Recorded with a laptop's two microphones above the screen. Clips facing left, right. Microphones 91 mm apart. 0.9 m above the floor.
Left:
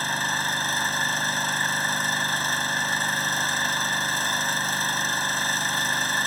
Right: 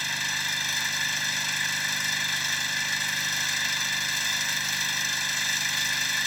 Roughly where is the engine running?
Left.